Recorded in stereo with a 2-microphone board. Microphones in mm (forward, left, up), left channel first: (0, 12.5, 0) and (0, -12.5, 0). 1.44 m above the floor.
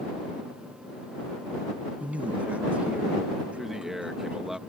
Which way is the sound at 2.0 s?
75° right (ahead or behind).